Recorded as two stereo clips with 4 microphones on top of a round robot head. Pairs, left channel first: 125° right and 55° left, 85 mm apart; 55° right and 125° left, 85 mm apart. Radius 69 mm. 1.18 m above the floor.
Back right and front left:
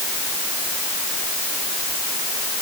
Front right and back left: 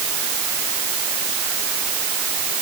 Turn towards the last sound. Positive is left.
No sound to turn to.